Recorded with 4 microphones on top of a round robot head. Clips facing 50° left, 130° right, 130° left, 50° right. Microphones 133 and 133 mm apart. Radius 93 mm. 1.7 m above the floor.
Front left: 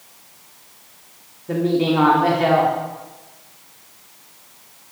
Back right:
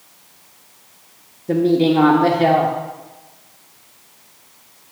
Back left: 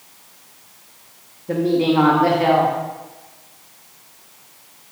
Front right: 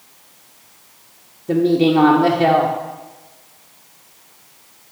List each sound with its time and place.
1.5 s a woman speaking: 100° right, 0.5 m